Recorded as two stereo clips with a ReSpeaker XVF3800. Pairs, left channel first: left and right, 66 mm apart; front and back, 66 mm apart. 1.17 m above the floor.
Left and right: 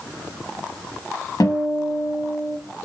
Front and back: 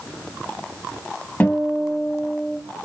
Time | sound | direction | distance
1.4 | a guitar | 65° left | 1.5 m